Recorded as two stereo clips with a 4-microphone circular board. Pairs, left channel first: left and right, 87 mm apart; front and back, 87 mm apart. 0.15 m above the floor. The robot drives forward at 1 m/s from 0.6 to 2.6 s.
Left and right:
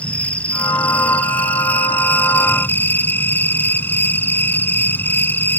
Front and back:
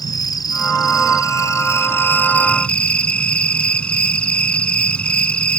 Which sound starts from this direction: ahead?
An insect, at 0.0 s.